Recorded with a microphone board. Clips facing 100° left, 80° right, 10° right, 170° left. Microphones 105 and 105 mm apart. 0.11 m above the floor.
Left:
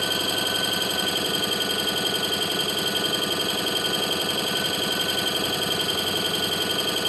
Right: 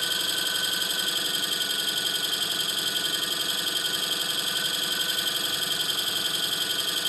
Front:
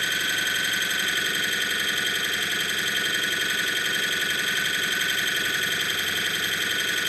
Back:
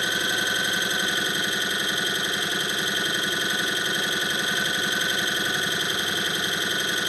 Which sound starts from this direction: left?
An engine running, at 0.0 s.